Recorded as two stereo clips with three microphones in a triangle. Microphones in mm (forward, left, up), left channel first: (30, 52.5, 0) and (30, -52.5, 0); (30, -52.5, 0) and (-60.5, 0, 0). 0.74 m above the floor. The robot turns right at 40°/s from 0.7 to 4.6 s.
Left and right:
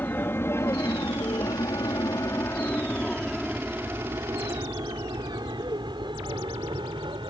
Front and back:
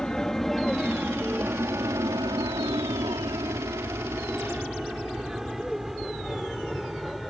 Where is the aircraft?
45° left; by 7.3 s 120° right.